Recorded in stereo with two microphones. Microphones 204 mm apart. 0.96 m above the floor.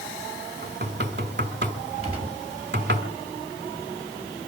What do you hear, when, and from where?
0.6 s knocking: 50° right (ahead or behind), 2.5 m
2.0 s a gunshot: 30° right (ahead or behind), 6 m